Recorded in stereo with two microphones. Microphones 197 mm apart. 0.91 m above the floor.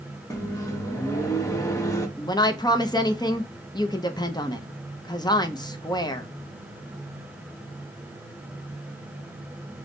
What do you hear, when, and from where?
0.3 s a microwave: 15° left (ahead or behind), 0.8 m
2.2 s a woman speaking: 20° left (ahead or behind), 0.6 m